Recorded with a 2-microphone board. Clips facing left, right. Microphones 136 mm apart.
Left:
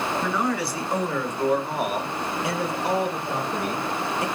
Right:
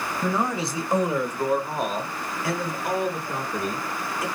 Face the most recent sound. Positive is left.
turn(degrees=40)  # may be behind; listen again after turning